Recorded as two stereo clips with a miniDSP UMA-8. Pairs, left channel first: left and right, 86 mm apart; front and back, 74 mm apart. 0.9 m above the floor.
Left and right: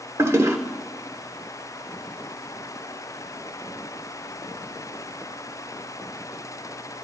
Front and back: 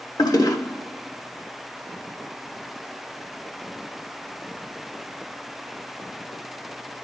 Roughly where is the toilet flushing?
Ahead right.